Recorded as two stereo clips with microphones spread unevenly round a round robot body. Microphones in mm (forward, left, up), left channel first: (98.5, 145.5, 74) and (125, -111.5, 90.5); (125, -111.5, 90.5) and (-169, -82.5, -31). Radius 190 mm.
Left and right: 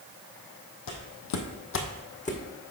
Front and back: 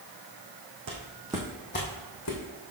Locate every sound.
0.9 s footsteps: 120° left, 1.3 m; by 2.4 s 30° left, 2.0 m